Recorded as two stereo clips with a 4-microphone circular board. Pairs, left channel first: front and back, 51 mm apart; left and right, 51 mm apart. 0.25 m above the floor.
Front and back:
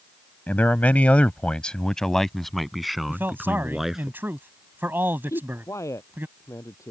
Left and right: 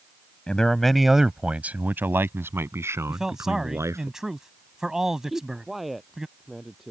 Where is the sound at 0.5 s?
30° left; by 4.1 s 100° right.